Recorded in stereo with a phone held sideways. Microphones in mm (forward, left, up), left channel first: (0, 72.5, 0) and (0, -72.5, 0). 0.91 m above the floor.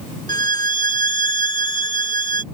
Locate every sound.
0.3 s a violin: 30° left (ahead or behind)